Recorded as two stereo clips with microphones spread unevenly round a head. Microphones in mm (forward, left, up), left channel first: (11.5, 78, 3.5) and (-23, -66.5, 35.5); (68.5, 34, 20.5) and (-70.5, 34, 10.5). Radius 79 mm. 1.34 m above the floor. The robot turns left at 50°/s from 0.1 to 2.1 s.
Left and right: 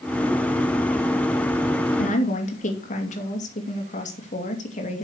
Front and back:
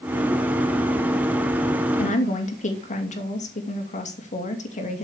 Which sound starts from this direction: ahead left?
A woman speaking, at 2.0 s.